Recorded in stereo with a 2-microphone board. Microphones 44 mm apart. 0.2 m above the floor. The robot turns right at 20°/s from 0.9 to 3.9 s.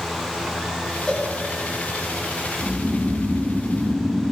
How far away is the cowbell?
About 6.5 m.